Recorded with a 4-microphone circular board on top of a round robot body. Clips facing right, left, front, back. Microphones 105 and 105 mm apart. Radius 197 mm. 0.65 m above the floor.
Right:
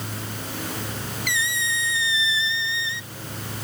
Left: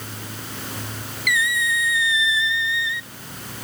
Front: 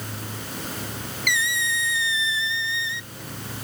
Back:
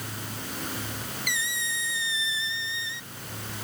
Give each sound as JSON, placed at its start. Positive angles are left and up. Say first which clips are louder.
{"t": 1.3, "sound": "a squeak", "louder": "left 6 dB, front 10 dB", "azimuth_deg": -30}